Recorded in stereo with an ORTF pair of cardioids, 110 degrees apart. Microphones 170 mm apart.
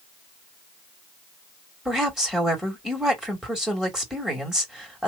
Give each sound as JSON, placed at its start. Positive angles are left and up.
{"t": 1.9, "sound": "a woman speaking", "azimuth_deg": -5, "distance_m": 2.0}